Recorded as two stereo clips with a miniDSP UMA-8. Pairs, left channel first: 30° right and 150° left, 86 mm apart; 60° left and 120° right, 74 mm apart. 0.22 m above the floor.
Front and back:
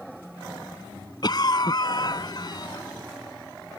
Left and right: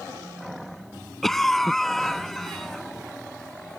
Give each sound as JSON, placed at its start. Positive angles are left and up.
{"t": 1.2, "sound": "a cough", "azimuth_deg": -25}